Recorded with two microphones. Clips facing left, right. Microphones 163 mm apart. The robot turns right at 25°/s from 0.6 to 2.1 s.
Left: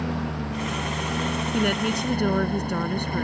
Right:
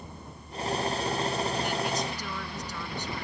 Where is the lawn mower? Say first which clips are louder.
Left 17 dB; 90° left; by 3.2 s 130° left.